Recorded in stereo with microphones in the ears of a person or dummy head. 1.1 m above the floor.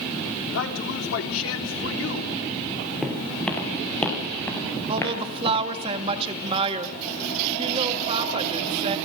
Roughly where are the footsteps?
Centre.